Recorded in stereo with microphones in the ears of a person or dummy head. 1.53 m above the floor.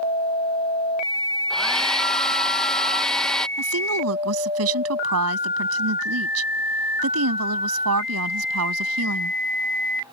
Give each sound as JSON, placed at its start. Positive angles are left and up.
{"t": 1.5, "sound": "a hair dryer", "side_deg": 0}
{"t": 3.6, "sound": "a woman speaking", "side_deg": -85}